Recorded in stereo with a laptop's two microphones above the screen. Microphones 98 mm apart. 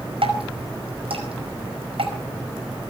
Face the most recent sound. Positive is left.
turn(degrees=-75)  # may be behind; listen again after turning